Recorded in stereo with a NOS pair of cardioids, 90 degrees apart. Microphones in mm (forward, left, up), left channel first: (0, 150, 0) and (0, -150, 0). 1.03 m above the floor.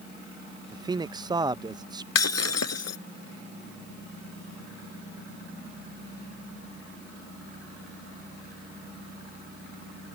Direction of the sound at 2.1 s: 60° left.